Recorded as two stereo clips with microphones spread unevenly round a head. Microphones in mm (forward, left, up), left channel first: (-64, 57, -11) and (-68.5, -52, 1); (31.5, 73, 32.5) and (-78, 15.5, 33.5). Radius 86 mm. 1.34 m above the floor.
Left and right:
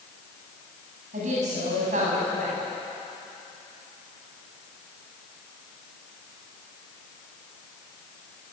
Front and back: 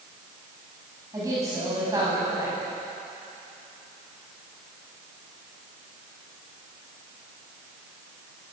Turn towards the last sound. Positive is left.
turn(degrees=-80)